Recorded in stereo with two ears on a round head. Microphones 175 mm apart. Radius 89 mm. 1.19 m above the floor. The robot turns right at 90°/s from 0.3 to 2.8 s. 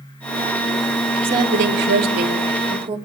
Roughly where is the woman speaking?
Behind.